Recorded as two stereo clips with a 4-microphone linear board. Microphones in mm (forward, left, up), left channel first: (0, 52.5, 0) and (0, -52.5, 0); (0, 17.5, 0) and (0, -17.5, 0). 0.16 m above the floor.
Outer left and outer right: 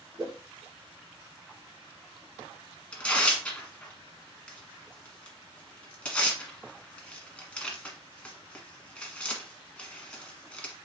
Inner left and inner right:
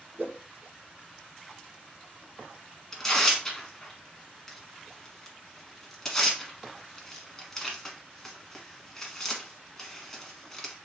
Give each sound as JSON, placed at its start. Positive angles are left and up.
{"t": 0.2, "sound": "a whoosh", "side_deg": -40, "distance_m": 2.5}
{"t": 2.9, "sound": "tearing paper", "side_deg": 10, "distance_m": 1.2}